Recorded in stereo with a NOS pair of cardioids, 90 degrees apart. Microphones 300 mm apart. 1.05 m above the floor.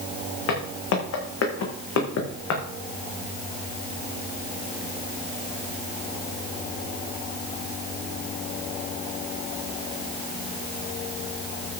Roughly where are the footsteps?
Ahead left.